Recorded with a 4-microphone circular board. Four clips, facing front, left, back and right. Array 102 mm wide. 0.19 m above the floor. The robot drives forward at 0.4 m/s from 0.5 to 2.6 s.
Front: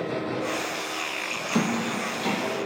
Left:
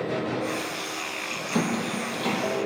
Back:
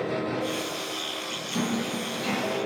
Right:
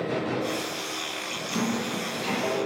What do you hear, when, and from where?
1.6 s a squeak: 35° left, 2 m; by 2.4 s 40° left, 1.9 m